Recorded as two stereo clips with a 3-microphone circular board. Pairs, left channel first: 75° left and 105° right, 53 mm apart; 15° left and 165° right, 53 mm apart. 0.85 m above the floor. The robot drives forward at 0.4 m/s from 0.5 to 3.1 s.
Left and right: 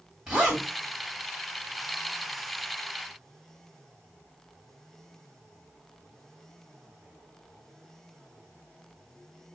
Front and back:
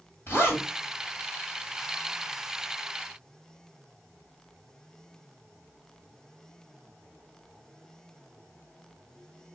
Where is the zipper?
30° right, 2.5 m.